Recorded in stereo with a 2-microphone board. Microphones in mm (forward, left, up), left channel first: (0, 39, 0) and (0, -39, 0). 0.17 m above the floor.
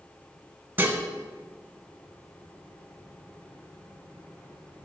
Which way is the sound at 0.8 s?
25° right (ahead or behind).